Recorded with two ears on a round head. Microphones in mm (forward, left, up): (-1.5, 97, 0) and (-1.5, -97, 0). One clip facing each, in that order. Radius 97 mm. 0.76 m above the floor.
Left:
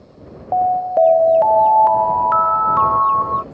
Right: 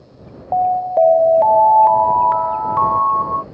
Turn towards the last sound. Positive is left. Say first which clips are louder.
# even
turn(degrees=5)  # may be behind; listen again after turning